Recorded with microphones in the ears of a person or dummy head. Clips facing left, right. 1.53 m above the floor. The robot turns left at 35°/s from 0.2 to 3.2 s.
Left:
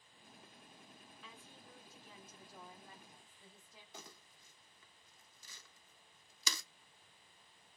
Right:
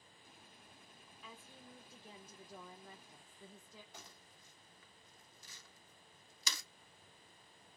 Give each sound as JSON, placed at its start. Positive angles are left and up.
{"t": 1.2, "sound": "a woman speaking", "azimuth_deg": 0, "distance_m": 0.6}
{"t": 3.9, "sound": "crumpling", "side_deg": 80, "distance_m": 0.7}